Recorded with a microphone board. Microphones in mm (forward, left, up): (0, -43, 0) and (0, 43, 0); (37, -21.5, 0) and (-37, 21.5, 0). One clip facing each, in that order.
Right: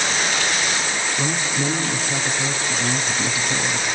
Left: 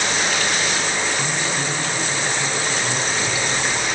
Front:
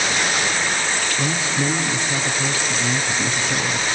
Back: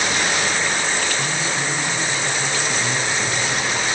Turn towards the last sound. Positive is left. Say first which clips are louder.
# even, front 1 dB
turn(degrees=-90)